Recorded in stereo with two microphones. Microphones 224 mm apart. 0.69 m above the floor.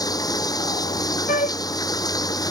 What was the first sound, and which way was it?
Running water, 15° left (ahead or behind).